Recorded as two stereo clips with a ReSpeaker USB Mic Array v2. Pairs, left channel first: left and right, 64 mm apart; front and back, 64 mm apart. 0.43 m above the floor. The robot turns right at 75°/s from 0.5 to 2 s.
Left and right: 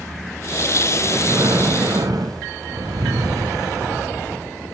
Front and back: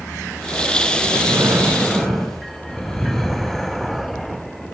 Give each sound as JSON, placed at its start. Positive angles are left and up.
{"t": 1.0, "sound": "breathing", "azimuth_deg": -160, "distance_m": 1.8}